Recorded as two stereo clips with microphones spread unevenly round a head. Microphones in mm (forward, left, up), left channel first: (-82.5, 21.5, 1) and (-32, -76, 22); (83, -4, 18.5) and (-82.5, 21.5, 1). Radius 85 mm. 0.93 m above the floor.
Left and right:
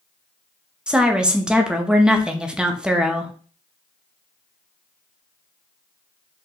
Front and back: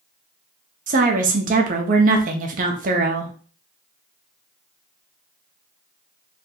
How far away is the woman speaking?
About 0.6 m.